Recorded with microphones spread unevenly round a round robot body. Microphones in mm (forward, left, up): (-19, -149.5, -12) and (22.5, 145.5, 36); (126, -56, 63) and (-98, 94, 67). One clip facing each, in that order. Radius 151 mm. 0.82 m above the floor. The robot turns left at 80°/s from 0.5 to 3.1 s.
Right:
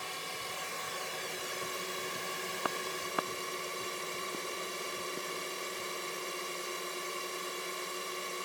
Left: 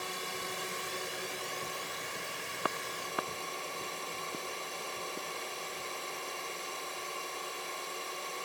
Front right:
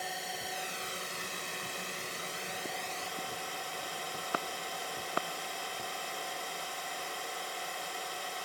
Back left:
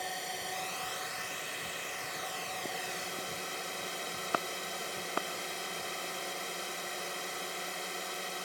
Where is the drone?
55° left; by 8.4 s 155° right.